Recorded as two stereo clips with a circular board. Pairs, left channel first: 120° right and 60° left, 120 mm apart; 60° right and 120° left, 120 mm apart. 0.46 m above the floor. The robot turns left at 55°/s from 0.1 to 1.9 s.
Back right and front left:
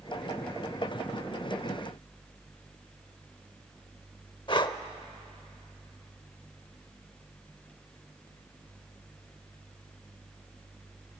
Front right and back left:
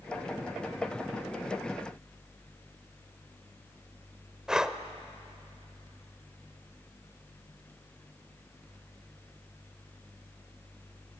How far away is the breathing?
About 0.8 m.